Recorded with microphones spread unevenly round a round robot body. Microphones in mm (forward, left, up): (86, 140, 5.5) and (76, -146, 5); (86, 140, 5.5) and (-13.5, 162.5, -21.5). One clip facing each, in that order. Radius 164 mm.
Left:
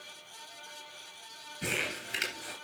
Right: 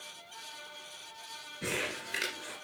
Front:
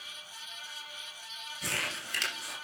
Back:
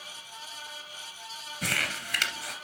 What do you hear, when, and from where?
1.6 s crumpling: 175° left, 2.5 m